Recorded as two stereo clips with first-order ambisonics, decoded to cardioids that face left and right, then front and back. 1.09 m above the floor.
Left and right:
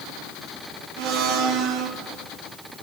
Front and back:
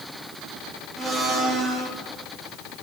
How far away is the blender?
About 1.8 m.